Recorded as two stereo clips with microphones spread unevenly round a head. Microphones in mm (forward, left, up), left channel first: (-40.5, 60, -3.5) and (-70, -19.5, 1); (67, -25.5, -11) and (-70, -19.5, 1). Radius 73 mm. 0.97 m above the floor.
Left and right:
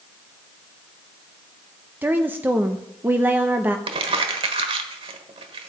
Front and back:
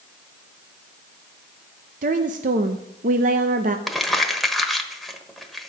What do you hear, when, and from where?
2.0 s a woman speaking: 175° right, 0.7 m
3.9 s crumpling: 95° right, 1.3 m